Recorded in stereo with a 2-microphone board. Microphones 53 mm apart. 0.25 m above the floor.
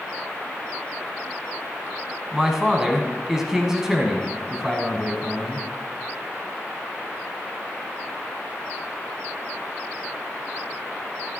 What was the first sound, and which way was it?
A man speaking, 10° right (ahead or behind).